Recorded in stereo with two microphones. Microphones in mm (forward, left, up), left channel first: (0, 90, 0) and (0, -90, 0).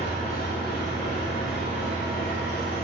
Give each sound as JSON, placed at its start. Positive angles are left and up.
{"t": 0.0, "sound": "an engine running", "side_deg": 55, "distance_m": 0.9}